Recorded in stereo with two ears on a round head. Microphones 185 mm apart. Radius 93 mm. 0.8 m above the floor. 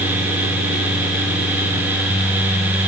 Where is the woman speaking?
No woman speaking in this recording.